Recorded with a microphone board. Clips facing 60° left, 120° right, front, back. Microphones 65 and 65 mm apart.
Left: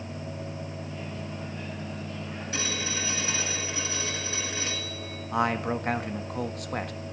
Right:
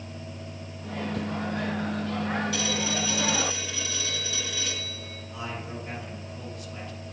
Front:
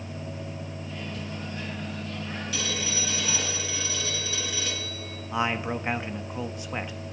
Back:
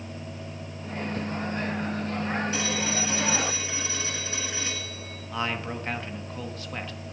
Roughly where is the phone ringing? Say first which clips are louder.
Right 4 dB, back 4 dB; behind left.